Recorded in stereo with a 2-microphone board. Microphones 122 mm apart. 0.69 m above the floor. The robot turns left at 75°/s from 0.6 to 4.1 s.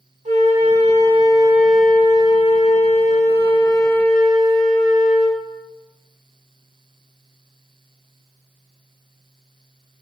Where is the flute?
90° right, 1.9 m; by 5.4 s 5° left, 1.9 m.